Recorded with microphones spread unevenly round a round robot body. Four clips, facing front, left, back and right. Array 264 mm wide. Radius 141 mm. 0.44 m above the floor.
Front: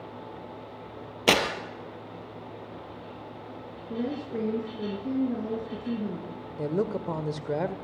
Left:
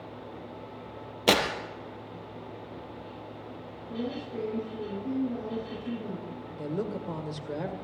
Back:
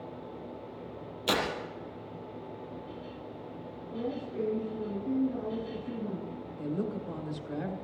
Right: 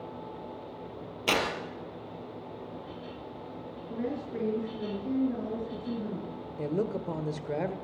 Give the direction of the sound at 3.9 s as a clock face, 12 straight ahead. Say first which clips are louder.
Even, front 4 dB; 12 o'clock.